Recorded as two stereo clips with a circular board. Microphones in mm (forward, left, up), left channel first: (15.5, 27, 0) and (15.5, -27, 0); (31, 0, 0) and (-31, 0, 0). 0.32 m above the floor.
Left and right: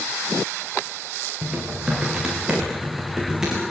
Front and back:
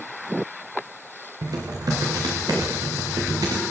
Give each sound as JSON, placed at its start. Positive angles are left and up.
{"t": 1.4, "sound": "typing on a keyboard", "azimuth_deg": -170, "distance_m": 7.0}